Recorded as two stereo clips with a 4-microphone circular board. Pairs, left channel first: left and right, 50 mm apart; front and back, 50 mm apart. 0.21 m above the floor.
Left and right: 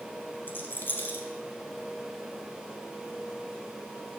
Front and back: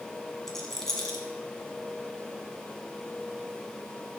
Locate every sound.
0.5 s a rattle: 80° left, 1.2 m